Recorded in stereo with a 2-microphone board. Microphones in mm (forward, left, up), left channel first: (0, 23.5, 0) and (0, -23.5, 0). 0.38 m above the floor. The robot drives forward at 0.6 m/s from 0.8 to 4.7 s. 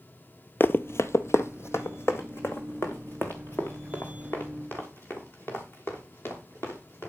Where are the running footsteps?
50° left (ahead or behind), 0.5 m; by 7.1 s 55° left (ahead or behind), 5 m.